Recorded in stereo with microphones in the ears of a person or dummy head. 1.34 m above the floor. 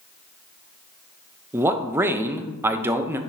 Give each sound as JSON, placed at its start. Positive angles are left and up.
{"t": 1.5, "sound": "a man speaking", "side_deg": -15, "distance_m": 0.8}